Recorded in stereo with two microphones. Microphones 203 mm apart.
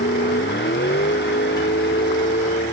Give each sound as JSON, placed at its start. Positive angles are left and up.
{"t": 0.0, "sound": "a vehicle", "side_deg": 60}